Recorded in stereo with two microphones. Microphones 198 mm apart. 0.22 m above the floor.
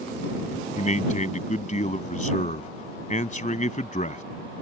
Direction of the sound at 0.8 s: 35° left (ahead or behind).